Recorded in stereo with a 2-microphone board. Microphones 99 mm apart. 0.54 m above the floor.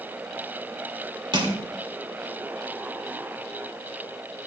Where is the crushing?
50° right (ahead or behind), 2 m.